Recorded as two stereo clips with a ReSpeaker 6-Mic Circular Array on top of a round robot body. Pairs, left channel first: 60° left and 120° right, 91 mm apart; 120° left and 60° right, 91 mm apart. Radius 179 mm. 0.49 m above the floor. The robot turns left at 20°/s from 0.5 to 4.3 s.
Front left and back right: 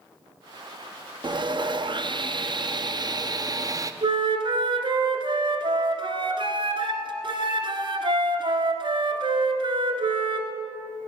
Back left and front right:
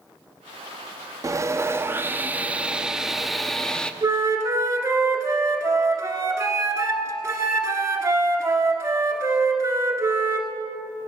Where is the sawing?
110° right, 0.8 m; by 3.9 s 160° right, 0.8 m.